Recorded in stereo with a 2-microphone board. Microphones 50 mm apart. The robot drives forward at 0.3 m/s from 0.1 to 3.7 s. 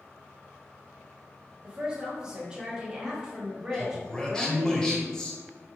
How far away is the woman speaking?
About 1.3 m.